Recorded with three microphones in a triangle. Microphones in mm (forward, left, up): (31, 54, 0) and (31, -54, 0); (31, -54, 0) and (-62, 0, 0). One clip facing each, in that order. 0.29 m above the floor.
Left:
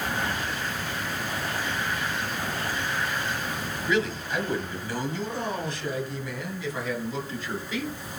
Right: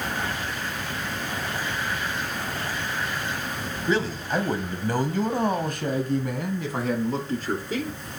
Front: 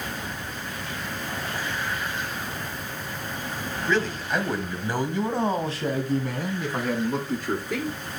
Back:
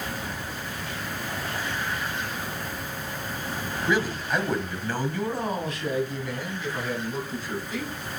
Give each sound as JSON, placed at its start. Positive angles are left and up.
{"t": 3.9, "sound": "a man speaking", "azimuth_deg": -135, "distance_m": 1.7}